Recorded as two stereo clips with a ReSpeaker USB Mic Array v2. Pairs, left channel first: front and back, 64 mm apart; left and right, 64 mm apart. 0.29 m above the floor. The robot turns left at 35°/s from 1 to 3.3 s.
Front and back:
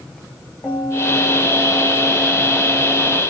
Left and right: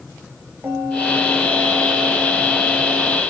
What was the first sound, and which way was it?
A bell, 20° right.